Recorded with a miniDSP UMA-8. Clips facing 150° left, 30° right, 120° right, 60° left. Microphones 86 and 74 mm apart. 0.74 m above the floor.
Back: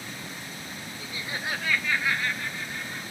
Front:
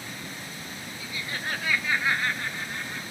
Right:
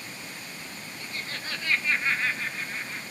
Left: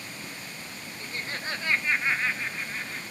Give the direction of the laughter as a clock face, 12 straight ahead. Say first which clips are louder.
Even, left 3 dB; 8 o'clock.